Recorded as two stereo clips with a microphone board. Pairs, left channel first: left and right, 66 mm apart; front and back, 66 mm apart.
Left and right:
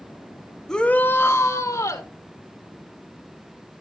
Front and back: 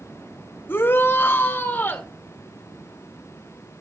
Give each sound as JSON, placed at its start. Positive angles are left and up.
{"t": 0.7, "sound": "a shout", "azimuth_deg": 10, "distance_m": 0.7}